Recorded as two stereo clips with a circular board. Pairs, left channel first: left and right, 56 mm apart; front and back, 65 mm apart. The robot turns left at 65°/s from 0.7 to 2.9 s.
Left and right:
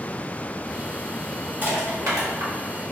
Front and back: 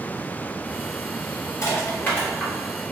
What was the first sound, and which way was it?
Crushing, 35° right.